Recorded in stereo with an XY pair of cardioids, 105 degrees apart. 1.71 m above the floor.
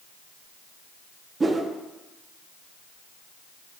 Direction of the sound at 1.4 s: 25° right.